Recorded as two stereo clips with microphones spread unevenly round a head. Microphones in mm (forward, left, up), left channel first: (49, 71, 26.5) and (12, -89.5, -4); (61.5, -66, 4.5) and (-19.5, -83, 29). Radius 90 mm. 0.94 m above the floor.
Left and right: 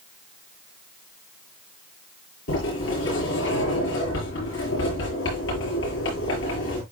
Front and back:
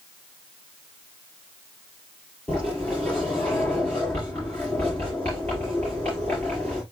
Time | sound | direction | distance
2.5 | a sliding door | 100° left | 7 m